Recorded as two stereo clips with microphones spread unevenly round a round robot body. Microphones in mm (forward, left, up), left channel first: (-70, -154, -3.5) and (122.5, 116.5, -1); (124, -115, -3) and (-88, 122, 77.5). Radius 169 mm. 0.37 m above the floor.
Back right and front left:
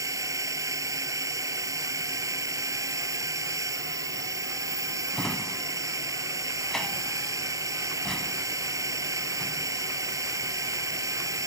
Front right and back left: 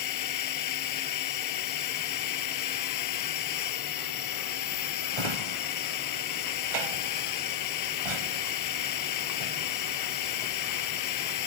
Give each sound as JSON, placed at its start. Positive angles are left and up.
{"t": 0.0, "sound": "a drone", "azimuth_deg": -25}
{"t": 5.1, "sound": "a drawer", "azimuth_deg": 145}